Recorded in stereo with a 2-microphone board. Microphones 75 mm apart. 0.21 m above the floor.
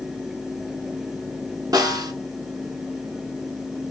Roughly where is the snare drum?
Right.